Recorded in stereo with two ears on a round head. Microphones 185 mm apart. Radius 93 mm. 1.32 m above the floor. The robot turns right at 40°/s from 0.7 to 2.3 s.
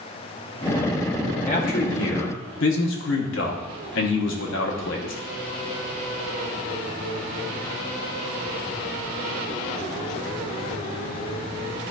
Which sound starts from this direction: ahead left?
A man speaking, at 1.5 s.